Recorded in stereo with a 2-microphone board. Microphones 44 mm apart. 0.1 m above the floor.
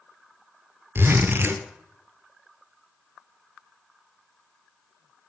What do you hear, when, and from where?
0.9 s a zipper: 55° right (ahead or behind), 0.6 m